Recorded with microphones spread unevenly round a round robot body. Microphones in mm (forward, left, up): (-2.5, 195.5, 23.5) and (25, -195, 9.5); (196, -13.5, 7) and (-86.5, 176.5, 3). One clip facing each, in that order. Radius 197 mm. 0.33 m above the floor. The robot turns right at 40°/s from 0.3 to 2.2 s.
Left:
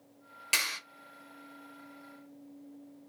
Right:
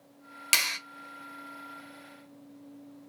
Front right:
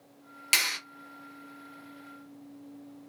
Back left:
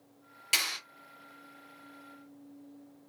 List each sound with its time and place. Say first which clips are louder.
0.5 s a clap: right 1 dB, front right 2 dB; 85° right, 1.1 m; by 0.8 s 75° right, 1.1 m